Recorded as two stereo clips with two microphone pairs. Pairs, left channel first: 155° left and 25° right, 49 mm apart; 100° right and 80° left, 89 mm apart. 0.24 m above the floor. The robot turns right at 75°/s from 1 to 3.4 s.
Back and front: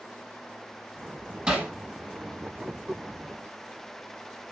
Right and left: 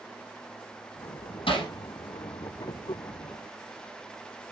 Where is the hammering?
95° right, 4.5 m; by 1.7 s 75° right, 4.5 m.